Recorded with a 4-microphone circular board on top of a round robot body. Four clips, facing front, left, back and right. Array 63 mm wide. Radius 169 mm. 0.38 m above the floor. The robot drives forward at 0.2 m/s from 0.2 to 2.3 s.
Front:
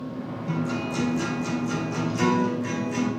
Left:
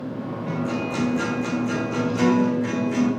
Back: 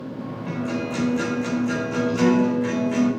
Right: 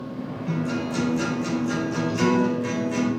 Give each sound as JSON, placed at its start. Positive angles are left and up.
{"t": 0.5, "sound": "a guitar", "azimuth_deg": 170, "distance_m": 3.5}